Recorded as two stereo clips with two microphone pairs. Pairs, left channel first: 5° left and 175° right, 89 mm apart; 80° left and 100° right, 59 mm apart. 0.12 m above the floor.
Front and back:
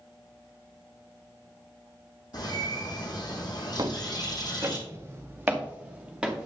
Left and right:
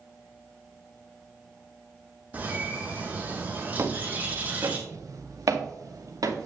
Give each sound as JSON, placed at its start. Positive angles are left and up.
{"t": 2.3, "sound": "a bird", "azimuth_deg": -35, "distance_m": 2.5}
{"t": 3.8, "sound": "footsteps", "azimuth_deg": -140, "distance_m": 1.8}